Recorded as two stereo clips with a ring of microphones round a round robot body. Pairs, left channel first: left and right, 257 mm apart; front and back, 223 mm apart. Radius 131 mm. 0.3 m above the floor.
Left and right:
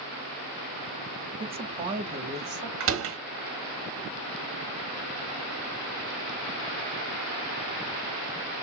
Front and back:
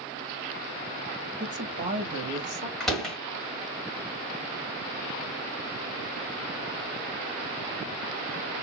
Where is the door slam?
85° right, 1.3 m.